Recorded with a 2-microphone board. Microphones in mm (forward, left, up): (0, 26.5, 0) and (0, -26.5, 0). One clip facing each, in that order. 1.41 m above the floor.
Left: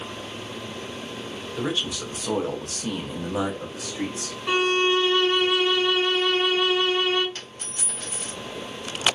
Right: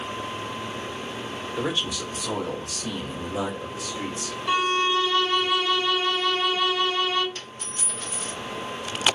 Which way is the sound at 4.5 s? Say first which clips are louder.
Left 1 dB; 45° left (ahead or behind).